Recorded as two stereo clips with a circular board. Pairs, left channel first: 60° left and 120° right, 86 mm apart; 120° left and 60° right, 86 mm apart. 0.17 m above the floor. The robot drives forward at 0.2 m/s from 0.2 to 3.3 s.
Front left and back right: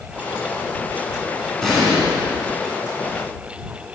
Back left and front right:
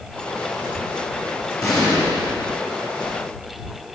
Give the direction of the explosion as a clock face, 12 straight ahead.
7 o'clock.